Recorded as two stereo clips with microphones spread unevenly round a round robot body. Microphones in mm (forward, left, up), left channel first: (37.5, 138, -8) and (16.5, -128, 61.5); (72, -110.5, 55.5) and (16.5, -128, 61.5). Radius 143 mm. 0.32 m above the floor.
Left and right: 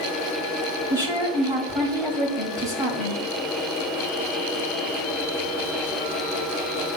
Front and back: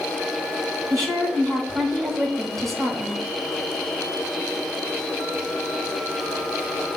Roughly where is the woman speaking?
Behind.